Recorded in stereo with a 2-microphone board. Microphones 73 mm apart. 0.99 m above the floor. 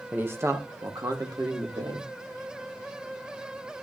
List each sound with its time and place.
0.1 s a man speaking: 20° right (ahead or behind), 1.1 m; by 2.1 s 70° right (ahead or behind), 3.5 m